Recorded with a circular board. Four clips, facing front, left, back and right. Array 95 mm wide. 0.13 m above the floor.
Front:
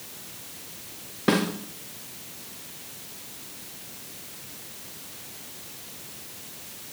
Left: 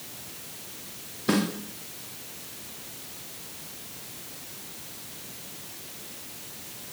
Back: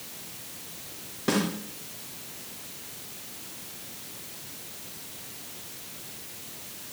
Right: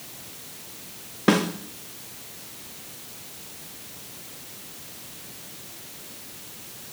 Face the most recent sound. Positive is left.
turn(degrees=-70)